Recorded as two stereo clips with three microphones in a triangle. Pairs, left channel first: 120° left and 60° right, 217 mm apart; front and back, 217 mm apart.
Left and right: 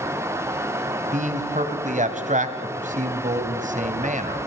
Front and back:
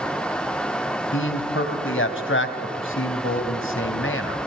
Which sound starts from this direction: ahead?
A man speaking, at 1.1 s.